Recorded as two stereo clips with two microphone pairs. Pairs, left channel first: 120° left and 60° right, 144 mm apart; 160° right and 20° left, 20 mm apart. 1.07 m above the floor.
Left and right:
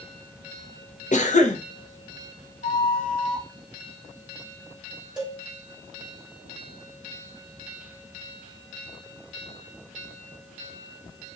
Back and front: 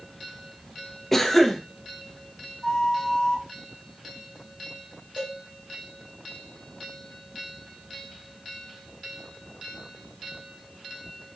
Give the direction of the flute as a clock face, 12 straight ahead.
7 o'clock.